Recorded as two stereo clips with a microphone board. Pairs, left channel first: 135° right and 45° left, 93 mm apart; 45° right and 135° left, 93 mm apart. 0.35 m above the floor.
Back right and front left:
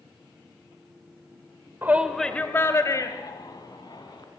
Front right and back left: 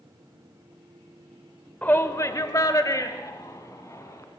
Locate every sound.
1.8 s a shout: 10° left, 0.9 m; by 4.2 s 100° right, 3 m